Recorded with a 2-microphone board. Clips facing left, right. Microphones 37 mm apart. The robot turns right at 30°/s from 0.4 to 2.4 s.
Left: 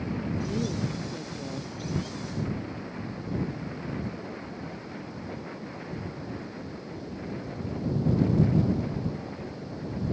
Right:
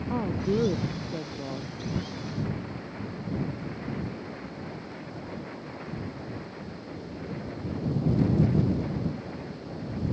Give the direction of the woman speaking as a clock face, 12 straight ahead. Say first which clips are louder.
Right 6 dB; 2 o'clock.